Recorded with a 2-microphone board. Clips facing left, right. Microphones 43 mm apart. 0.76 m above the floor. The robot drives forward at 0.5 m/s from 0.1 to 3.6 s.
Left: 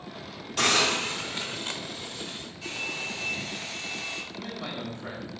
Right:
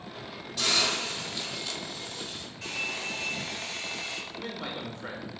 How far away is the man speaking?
About 2.5 m.